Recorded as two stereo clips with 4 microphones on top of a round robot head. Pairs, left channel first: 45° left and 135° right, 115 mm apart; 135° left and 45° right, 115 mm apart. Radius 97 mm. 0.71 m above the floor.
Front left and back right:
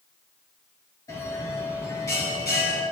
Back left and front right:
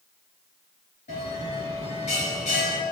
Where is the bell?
105° left, 5 m.